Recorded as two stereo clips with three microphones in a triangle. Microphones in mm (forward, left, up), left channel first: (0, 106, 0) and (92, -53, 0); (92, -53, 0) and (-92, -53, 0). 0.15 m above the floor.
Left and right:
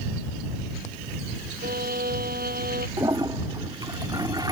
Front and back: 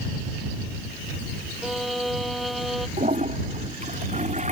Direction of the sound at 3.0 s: 130° right.